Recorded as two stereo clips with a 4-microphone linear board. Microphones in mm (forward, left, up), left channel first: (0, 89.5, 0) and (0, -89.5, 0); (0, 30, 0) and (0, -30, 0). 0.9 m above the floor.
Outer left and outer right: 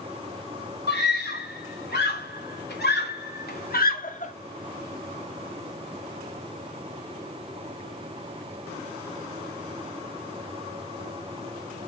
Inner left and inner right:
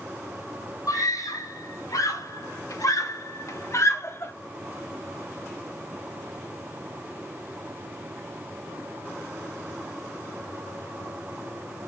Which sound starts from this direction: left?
A scream, at 0.9 s.